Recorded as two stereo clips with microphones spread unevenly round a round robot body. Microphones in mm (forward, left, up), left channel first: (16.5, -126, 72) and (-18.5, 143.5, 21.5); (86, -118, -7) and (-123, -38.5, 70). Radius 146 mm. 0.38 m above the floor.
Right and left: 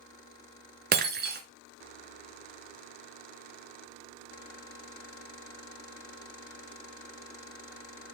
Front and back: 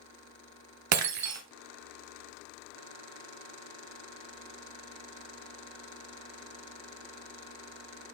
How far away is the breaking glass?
About 1.2 m.